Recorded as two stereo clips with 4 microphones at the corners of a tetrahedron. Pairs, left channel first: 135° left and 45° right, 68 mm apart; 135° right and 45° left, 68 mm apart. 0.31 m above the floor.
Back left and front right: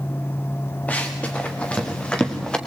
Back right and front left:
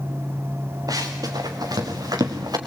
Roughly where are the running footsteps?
Left.